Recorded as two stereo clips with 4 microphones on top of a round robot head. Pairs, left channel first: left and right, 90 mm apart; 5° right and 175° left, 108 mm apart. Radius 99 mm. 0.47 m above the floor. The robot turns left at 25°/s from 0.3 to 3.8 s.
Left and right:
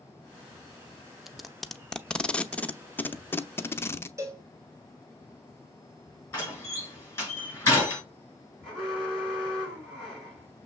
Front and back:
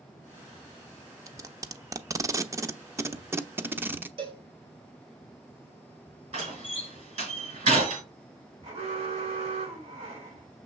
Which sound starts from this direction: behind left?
A door slam, at 6.3 s.